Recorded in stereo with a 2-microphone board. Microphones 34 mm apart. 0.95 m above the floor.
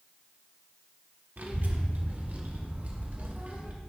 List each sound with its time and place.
1.4 s a child speaking: 60° right (ahead or behind), 1.7 m; by 3.7 s 45° right (ahead or behind), 3 m